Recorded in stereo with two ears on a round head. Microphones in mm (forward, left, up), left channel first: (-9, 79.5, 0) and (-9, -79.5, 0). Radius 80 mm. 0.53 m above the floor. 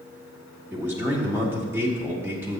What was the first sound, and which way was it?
A man speaking, 10° right (ahead or behind).